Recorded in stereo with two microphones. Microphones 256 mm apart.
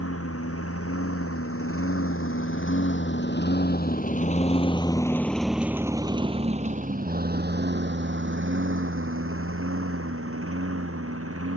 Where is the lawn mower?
70° left (ahead or behind); by 11.6 s 70° right (ahead or behind).